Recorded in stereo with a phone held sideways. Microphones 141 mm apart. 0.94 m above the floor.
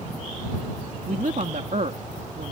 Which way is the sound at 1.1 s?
65° right (ahead or behind).